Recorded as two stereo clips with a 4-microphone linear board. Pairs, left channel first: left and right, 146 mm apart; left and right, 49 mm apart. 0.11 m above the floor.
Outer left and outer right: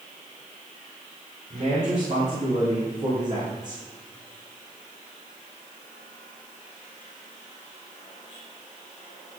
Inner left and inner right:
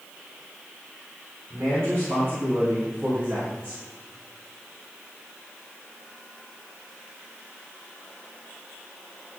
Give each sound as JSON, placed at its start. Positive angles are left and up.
{"t": 1.5, "sound": "a man speaking", "side_deg": -40, "distance_m": 6.5}